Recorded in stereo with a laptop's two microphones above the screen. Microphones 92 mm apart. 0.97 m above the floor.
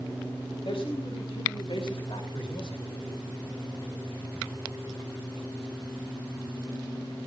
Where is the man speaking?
80° left, 3.5 m; by 2.9 s 60° left (ahead or behind), 3 m.